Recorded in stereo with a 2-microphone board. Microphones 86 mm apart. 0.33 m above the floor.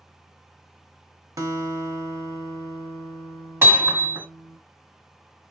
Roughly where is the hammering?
Right.